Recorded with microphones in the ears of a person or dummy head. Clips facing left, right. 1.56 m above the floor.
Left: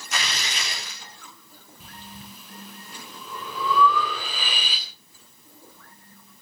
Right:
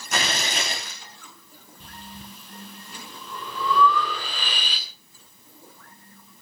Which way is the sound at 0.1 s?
45° right (ahead or behind).